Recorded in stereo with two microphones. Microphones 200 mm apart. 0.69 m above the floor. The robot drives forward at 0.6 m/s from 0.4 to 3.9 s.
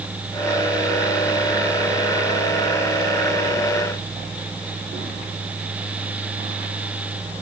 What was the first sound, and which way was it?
Only background noise.